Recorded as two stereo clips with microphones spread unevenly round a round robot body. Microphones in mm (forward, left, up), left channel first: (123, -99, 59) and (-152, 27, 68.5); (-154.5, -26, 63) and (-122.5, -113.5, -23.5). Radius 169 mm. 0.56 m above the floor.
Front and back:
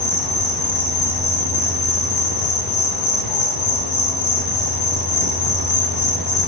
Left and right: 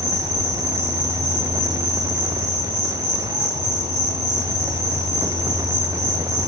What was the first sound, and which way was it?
An insect, 5° right.